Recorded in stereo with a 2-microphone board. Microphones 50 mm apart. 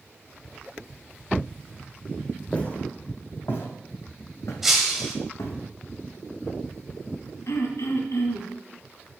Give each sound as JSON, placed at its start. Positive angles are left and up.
{"t": 2.5, "sound": "footsteps", "side_deg": 25, "distance_m": 2.0}
{"t": 4.6, "sound": "breaking glass", "side_deg": -5, "distance_m": 1.6}
{"t": 7.5, "sound": "throat clearing", "side_deg": 80, "distance_m": 1.9}